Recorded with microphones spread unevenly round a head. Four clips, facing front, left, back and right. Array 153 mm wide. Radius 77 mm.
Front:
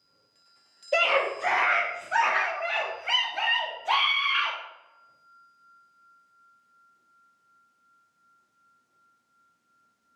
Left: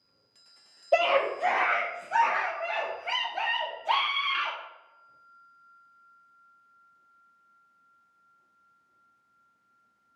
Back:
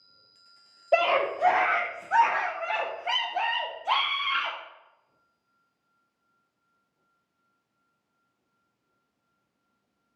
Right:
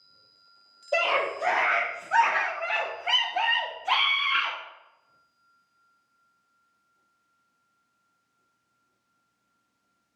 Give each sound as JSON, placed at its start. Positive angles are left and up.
{"t": 0.9, "sound": "a scream", "azimuth_deg": 150, "distance_m": 2.0}